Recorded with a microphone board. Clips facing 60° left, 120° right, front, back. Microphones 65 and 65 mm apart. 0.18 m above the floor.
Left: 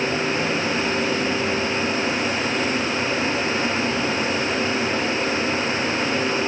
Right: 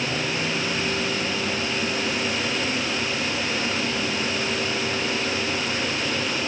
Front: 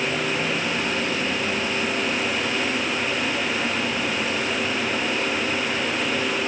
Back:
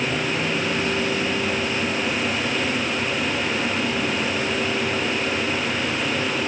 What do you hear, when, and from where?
Only background noise.